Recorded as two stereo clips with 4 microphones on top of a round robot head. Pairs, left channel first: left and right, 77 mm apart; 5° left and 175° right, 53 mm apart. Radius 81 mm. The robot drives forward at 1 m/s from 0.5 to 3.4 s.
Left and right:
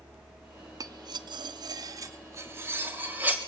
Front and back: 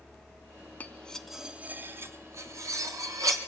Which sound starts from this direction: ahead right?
Cutlery clinking, at 0.8 s.